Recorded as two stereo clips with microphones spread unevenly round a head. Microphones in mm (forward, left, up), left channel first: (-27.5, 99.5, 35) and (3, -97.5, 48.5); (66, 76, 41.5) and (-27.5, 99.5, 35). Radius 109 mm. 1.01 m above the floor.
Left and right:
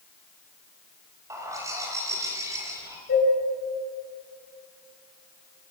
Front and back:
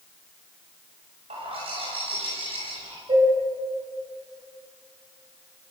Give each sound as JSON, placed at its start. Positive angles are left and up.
{"t": 1.3, "sound": "a bird", "azimuth_deg": -155, "distance_m": 6.0}
{"t": 3.1, "sound": "dishes clattering", "azimuth_deg": 135, "distance_m": 8.0}